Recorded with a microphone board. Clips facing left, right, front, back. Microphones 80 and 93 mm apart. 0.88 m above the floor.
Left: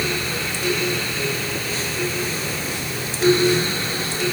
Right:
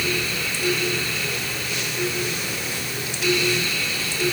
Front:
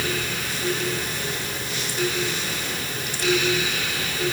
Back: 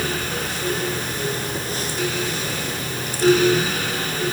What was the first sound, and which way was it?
Only background noise.